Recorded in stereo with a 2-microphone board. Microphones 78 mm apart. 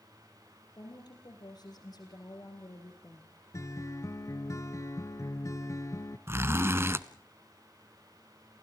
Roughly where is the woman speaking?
Left.